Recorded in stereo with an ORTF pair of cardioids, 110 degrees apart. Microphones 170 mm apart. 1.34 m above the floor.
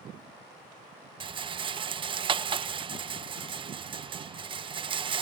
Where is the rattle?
30° right.